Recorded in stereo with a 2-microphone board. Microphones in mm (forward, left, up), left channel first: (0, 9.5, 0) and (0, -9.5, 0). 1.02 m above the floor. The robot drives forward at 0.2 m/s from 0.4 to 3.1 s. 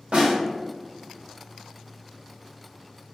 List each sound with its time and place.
0.1 s a snare drum: 80° right, 0.7 m